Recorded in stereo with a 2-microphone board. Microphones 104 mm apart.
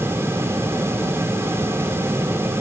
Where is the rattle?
No rattle in this recording.